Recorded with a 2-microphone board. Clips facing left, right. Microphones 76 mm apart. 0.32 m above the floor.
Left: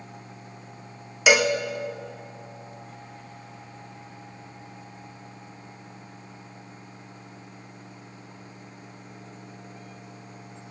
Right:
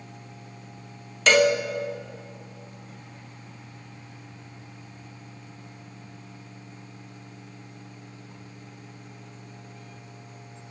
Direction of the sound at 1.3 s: 10° left (ahead or behind).